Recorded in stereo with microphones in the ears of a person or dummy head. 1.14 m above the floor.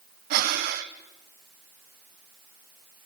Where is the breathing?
50° right (ahead or behind), 0.9 m.